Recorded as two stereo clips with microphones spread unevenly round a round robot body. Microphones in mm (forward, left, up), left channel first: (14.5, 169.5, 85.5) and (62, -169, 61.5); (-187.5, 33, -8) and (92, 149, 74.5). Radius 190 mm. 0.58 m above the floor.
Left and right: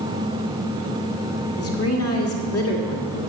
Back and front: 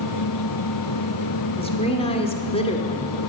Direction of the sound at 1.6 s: 145° left.